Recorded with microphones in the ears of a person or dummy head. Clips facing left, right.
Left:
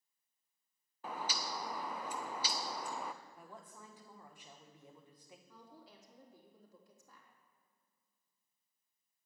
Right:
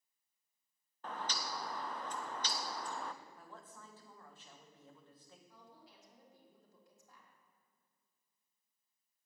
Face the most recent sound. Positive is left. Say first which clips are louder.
# left 3 dB
turn(degrees=70)  # may be behind; listen again after turning